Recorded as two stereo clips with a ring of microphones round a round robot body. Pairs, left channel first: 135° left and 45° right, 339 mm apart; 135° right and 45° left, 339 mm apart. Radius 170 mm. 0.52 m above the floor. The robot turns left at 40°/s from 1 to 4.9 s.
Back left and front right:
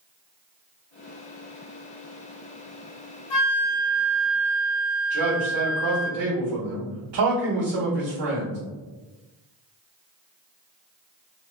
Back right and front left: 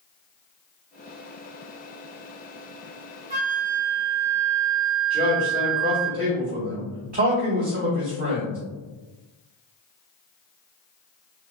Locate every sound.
3.3 s a flute: 115° left, 1.5 m; by 6.1 s 50° left, 1.5 m
5.1 s a man speaking: 20° right, 1.4 m